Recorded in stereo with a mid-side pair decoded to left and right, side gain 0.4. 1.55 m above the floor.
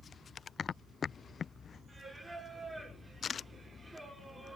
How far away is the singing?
About 5.5 m.